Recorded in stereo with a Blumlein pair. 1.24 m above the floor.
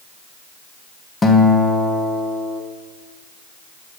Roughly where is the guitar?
Ahead.